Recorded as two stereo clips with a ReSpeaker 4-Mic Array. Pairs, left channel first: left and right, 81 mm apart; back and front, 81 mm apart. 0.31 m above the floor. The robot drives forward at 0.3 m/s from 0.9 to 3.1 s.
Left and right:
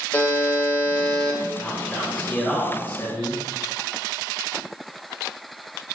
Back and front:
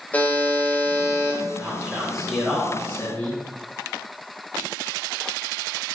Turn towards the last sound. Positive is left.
turn(degrees=135)